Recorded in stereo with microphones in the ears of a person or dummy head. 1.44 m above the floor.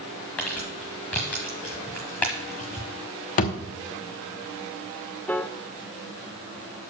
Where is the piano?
5° left (ahead or behind), 0.5 m.